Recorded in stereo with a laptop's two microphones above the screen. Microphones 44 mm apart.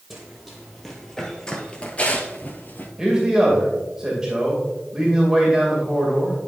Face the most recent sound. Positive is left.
turn(degrees=-15)  # may be behind; listen again after turning